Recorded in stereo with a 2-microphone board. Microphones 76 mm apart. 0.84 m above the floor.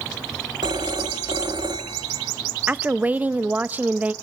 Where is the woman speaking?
20° right (ahead or behind), 0.5 m.